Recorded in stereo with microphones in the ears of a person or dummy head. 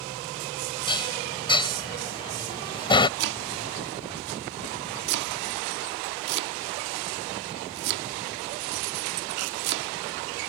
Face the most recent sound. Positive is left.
turn(degrees=-65)  # may be behind; listen again after turning